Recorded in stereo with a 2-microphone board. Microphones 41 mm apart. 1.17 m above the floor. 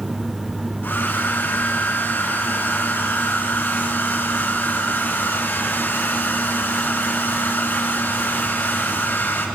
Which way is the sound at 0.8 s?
50° left (ahead or behind).